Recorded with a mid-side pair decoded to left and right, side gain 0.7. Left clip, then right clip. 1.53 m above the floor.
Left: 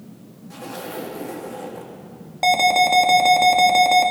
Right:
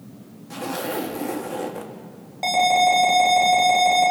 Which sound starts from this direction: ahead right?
A zipper, at 0.5 s.